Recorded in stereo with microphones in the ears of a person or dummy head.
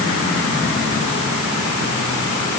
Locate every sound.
Only background noise.